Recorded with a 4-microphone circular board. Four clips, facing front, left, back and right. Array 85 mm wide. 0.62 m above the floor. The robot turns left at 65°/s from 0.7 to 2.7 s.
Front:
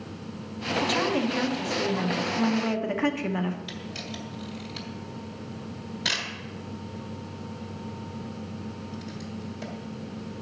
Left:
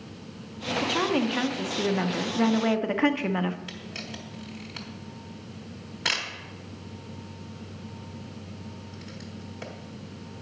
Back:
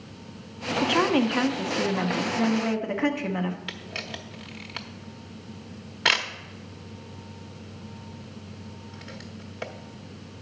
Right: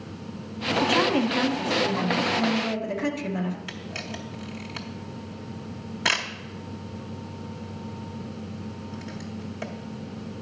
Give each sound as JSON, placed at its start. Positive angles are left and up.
{"t": 0.8, "sound": "a woman speaking", "azimuth_deg": -150, "distance_m": 0.6}
{"t": 3.7, "sound": "a camera shutter", "azimuth_deg": -150, "distance_m": 0.7}